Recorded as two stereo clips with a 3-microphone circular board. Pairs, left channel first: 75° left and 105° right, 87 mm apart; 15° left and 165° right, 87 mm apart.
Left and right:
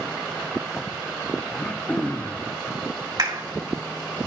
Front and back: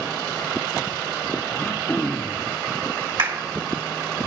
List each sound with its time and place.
1.5 s throat clearing: 40° left, 0.6 m
3.2 s a clap: 145° right, 2 m